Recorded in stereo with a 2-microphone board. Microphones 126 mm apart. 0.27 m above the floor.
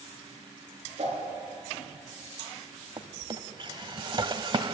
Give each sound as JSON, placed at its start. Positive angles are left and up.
{"t": 1.0, "sound": "a whoosh", "side_deg": -55, "distance_m": 6.5}
{"t": 3.0, "sound": "a drawer", "side_deg": -40, "distance_m": 0.9}